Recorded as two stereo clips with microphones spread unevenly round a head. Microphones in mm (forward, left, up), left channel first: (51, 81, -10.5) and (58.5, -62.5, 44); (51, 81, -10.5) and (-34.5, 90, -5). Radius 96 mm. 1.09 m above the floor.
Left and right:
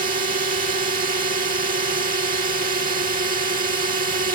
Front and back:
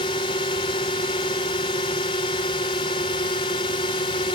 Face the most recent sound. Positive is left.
turn(degrees=-55)